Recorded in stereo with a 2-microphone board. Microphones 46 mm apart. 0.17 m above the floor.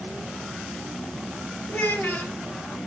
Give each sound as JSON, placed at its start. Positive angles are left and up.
{"t": 1.7, "sound": "a child speaking", "side_deg": 55, "distance_m": 2.5}